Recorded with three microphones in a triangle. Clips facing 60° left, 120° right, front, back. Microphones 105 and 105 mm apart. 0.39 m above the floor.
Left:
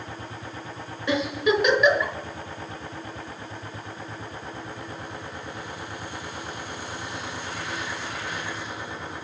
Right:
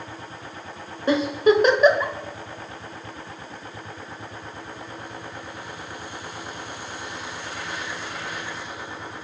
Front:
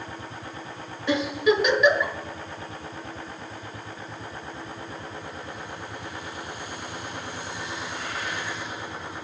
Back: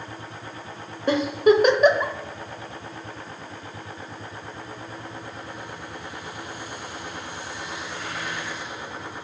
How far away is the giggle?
About 1.1 m.